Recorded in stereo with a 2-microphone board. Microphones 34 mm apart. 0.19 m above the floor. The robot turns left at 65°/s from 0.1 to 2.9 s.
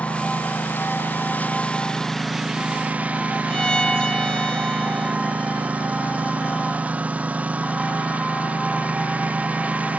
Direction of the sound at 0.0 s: 140° left.